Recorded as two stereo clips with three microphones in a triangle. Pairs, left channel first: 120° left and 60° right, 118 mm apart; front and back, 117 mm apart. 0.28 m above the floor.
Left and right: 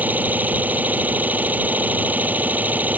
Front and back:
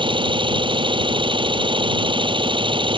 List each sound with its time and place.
0.0 s an engine running: 135° right